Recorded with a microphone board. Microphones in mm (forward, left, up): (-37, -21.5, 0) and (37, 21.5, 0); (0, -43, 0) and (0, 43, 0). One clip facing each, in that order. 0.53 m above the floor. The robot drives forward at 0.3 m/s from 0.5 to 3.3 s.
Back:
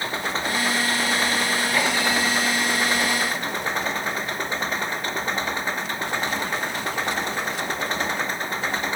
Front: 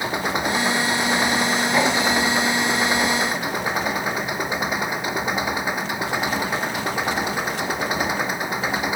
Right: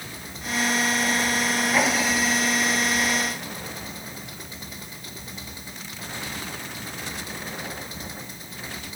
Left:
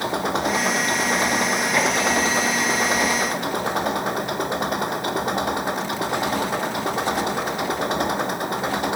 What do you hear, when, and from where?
0.0 s an engine running: 105° left; by 9.0 s 110° left